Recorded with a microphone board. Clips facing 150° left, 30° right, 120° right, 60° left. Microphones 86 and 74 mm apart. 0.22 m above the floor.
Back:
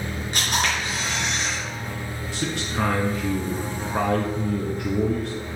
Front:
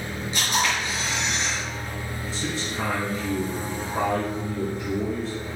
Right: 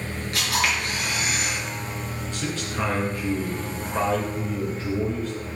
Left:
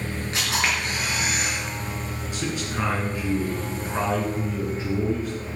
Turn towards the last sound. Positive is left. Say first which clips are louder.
# back 3 dB, left 1 dB
turn(degrees=135)